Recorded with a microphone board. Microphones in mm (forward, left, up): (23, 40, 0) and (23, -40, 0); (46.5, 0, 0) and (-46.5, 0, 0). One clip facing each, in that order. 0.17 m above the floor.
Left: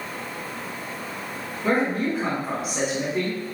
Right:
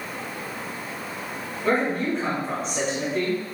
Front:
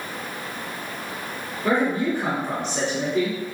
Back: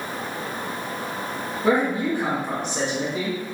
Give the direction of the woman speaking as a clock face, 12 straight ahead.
7 o'clock.